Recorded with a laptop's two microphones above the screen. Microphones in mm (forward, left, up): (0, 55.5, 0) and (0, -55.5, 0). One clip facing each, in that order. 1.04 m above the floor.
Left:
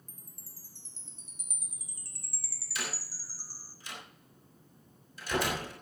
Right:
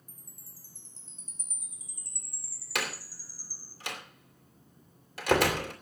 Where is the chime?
70° left (ahead or behind), 1.7 m.